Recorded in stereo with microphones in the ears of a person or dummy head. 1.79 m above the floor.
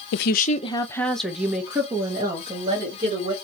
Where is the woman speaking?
65° left (ahead or behind), 0.6 m; by 3.3 s 30° right (ahead or behind), 2 m.